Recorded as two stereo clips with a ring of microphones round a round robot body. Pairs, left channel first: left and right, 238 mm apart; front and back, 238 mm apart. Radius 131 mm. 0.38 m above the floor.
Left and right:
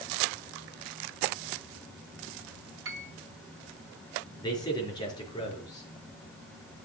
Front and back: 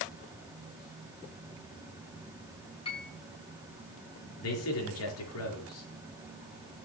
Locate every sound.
2.9 s a piano: 65° right, 1.9 m
4.4 s a man speaking: 15° left, 5 m